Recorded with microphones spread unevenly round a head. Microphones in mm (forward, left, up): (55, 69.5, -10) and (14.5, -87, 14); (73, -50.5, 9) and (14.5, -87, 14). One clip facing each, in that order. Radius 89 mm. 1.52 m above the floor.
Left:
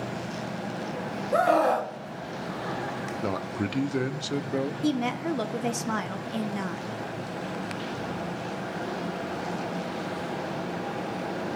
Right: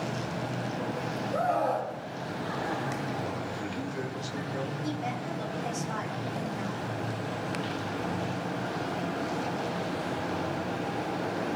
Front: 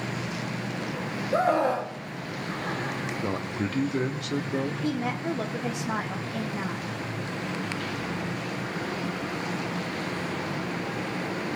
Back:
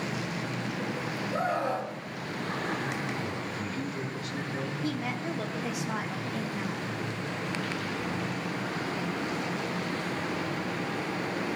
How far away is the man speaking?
About 0.7 m.